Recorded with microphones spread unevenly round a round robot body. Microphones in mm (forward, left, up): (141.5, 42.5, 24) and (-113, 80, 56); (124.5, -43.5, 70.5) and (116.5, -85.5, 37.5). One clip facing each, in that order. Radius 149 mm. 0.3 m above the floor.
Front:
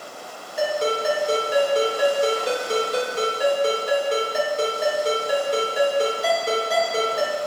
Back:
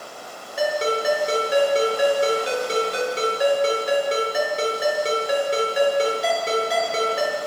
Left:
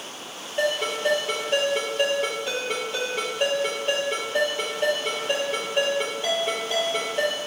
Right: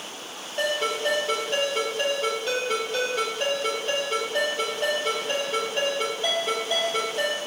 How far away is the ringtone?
About 3.5 m.